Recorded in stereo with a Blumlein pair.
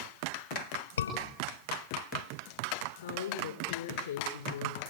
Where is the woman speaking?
65° left, 4.5 m.